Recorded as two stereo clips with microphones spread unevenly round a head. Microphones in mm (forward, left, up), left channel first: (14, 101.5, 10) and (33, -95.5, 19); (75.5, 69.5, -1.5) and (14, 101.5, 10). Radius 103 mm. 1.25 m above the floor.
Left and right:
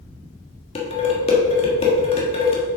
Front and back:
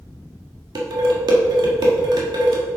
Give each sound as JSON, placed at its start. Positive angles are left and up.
{"t": 0.8, "sound": "dishes clattering", "azimuth_deg": 160, "distance_m": 1.3}